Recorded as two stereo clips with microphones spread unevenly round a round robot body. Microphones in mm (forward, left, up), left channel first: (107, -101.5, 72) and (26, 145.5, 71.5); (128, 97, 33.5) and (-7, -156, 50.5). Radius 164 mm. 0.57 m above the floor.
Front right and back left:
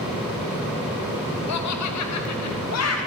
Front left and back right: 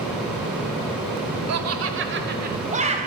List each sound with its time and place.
1.5 s laughter: 90° right, 2.5 m; by 3.0 s 50° right, 3.5 m